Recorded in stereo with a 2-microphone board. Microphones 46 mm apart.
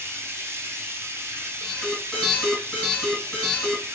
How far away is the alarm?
About 2.5 m.